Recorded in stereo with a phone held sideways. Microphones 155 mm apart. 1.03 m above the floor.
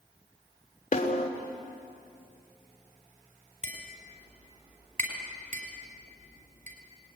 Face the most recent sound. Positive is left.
turn(degrees=-60)  # may be behind; listen again after turning